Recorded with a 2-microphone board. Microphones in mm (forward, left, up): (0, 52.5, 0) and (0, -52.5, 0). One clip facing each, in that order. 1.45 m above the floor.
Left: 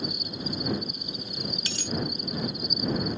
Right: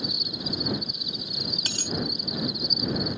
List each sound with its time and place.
0.0 s an insect: 40° left (ahead or behind)
1.7 s a dropped coin: 40° right (ahead or behind)